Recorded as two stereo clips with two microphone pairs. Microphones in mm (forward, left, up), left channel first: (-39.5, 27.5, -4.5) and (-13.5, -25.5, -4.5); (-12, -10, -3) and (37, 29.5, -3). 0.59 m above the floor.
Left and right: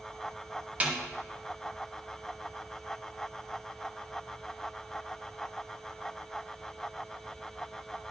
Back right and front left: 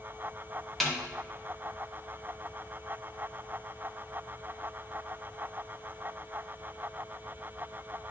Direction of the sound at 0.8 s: 50° right.